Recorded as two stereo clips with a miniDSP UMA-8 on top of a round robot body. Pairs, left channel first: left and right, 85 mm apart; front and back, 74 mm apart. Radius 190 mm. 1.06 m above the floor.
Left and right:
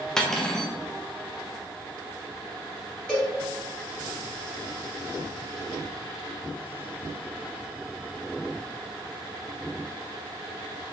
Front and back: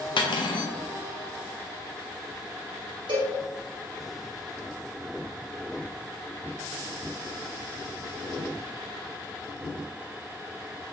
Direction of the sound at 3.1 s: 170° left.